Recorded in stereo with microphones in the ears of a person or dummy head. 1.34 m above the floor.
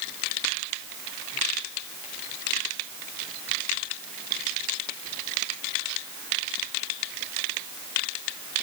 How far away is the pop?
No pop in this recording.